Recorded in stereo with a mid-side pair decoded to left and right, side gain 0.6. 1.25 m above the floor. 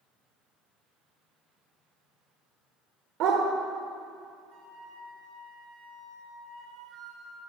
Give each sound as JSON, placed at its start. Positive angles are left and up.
{"t": 3.2, "sound": "a dog barking", "azimuth_deg": -65, "distance_m": 1.9}
{"t": 4.5, "sound": "a flute", "azimuth_deg": -60, "distance_m": 2.0}